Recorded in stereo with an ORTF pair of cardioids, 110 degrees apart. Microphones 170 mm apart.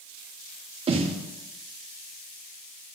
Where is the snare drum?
35° right, 2 m.